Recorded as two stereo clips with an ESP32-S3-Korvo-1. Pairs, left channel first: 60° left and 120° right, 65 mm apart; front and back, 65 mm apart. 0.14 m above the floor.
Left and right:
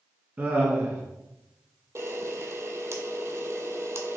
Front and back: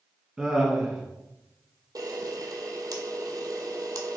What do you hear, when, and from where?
0.4 s laughter: 115° right, 1.2 m
1.9 s a camera shutter: 165° right, 0.7 m